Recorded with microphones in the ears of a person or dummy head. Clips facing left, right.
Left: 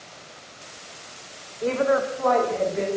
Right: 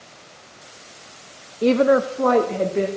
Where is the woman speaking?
40° right (ahead or behind), 0.5 m; by 2.9 s 50° right (ahead or behind), 2.5 m.